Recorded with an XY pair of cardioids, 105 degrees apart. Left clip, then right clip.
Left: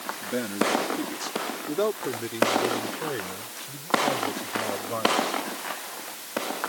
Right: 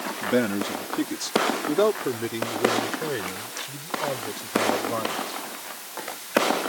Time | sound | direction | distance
0.2 | a man speaking | 50° right | ?